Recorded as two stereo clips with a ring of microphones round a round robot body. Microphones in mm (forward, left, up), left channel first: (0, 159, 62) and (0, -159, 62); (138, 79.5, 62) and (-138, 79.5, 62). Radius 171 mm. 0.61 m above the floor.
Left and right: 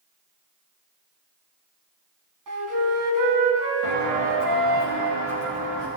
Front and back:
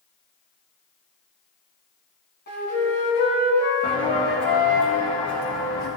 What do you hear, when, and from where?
2.5 s a flute: 60° right, 3 m
3.8 s footsteps: 75° right, 4.5 m; by 5.9 s 80° right, 7 m